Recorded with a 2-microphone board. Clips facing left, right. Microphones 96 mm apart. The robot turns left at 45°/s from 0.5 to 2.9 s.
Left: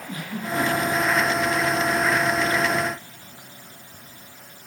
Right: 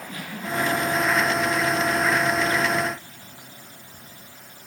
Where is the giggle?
25° left (ahead or behind), 8 m; by 1.2 s 10° right (ahead or behind), 8 m.